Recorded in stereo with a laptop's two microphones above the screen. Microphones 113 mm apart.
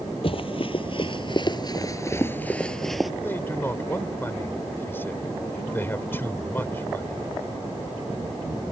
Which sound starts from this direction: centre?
A man speaking, at 3.2 s.